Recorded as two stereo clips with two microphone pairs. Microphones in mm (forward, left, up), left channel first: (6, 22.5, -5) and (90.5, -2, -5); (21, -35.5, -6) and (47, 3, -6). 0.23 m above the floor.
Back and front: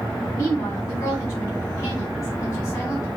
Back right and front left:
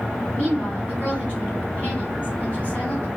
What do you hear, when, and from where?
0.3 s a woman speaking: 165° right, 1.6 m